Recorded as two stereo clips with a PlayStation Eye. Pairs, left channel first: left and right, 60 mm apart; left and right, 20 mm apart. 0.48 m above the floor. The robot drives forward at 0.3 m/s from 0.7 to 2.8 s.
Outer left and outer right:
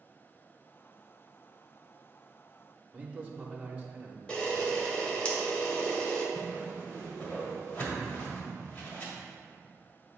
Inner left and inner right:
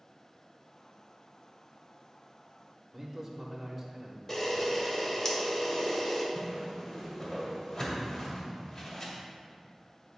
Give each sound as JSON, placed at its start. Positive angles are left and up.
{"t": 2.9, "sound": "a man speaking", "side_deg": -20, "distance_m": 0.8}
{"t": 4.3, "sound": "a camera shutter", "side_deg": 15, "distance_m": 1.1}
{"t": 6.3, "sound": "a whoosh", "side_deg": 25, "distance_m": 1.6}